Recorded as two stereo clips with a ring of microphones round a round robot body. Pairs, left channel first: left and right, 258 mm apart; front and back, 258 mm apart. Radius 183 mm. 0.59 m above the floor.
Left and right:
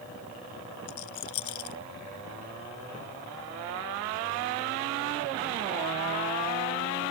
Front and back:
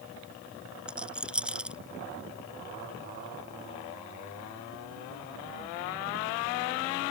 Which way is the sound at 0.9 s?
95° left.